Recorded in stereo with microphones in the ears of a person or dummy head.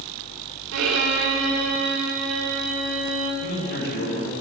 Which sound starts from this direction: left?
A man speaking, at 3.4 s.